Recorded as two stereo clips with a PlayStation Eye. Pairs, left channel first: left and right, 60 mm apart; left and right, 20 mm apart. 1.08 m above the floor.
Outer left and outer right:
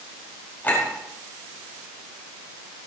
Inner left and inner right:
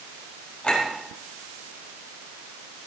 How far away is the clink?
About 5 m.